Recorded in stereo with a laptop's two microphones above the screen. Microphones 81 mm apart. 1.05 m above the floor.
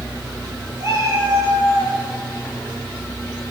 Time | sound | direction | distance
0.8 | a cat meowing | 35° right (ahead or behind) | 8 m